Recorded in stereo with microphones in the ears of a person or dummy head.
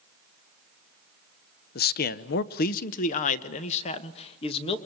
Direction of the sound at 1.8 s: 45° left (ahead or behind).